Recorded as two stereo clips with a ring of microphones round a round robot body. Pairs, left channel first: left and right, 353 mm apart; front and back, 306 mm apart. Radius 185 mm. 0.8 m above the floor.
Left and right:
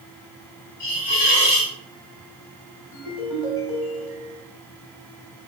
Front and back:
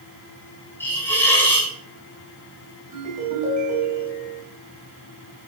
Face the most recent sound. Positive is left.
turn(degrees=115)